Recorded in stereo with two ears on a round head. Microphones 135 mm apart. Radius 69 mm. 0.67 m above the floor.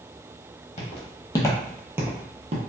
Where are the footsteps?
45° left (ahead or behind), 1.1 m; by 2.6 s 50° right (ahead or behind), 0.9 m.